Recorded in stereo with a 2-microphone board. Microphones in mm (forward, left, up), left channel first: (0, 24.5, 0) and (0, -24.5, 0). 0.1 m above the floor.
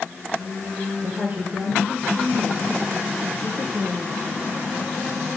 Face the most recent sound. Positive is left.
turn(degrees=-10)  # may be behind; listen again after turning